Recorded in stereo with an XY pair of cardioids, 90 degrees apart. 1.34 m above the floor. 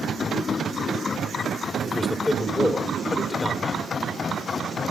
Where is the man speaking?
35° left, 3.5 m.